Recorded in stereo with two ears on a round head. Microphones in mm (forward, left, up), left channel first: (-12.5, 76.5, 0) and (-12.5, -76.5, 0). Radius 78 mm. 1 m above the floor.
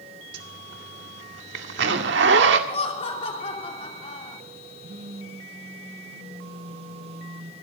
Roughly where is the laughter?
Left.